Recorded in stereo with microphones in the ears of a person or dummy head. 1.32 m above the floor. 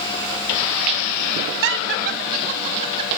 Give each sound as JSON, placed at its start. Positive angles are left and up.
{"t": 1.6, "sound": "laughter", "side_deg": -70, "distance_m": 1.4}